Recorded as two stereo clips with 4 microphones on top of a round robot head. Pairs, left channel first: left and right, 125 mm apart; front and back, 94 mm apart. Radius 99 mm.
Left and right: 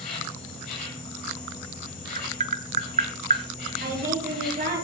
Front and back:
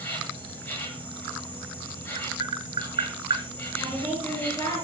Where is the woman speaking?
65° right, 8 m.